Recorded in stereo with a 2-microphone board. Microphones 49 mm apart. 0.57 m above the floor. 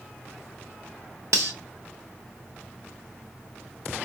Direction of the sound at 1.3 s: 70° right (ahead or behind).